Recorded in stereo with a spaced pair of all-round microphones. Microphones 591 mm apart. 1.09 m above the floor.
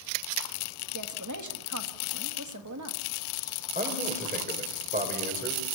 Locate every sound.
0.9 s a woman speaking: 25° right (ahead or behind), 2 m
3.8 s a man speaking: 15° right (ahead or behind), 5.5 m